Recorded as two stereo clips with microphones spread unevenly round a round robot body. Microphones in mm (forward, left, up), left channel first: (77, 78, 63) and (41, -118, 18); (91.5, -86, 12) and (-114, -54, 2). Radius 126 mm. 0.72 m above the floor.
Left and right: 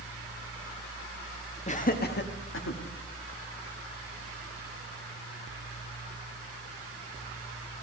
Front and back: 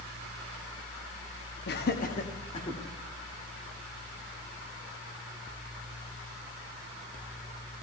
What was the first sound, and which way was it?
Laughter, 20° left.